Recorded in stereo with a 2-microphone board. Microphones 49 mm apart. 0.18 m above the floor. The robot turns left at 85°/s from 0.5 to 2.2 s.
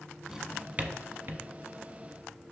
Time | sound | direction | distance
0.3 | a drawer | 10° right (ahead or behind) | 0.6 m